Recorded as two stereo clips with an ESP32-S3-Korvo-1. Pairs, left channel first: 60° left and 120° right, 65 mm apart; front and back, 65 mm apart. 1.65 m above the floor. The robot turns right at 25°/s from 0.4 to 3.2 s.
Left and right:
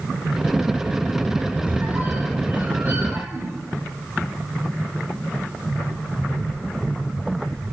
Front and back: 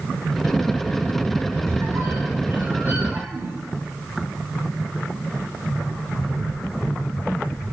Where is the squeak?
Straight behind, 1.6 m; by 3.6 s 140° right, 1.6 m.